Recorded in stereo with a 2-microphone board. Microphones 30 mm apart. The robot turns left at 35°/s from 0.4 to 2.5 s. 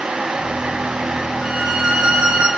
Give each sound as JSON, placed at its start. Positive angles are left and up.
{"t": 1.4, "sound": "a violin", "azimuth_deg": -20, "distance_m": 7.0}